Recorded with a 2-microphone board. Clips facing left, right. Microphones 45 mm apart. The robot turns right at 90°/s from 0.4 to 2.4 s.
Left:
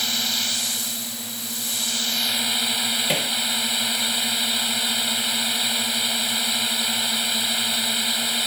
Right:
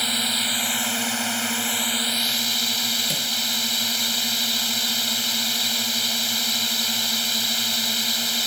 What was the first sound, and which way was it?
A drone, 165° right.